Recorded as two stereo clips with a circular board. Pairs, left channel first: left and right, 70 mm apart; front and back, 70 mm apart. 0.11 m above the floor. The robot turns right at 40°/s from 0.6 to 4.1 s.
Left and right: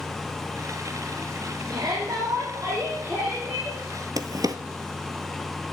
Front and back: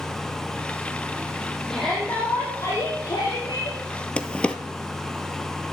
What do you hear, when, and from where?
1.7 s a shout: 85° right, 5 m; by 3.8 s 5° right, 5 m
4.2 s a drawer: 75° right, 0.9 m